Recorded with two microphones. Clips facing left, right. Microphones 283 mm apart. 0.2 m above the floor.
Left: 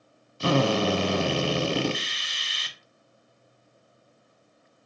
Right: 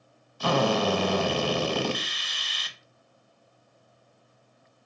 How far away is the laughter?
I don't hear laughter.